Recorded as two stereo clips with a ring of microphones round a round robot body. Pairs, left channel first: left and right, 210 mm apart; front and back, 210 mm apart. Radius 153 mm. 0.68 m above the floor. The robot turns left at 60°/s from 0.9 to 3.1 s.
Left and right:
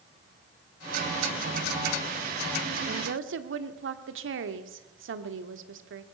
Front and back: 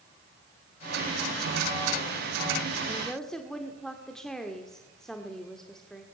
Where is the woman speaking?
75° right, 1.7 m; by 6.0 s 90° right, 1.7 m.